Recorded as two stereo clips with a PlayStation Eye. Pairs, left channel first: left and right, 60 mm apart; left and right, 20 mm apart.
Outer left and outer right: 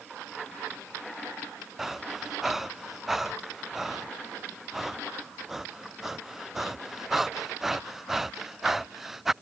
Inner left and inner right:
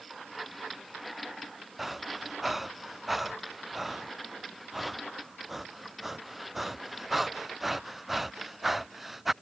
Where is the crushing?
I don't hear crushing.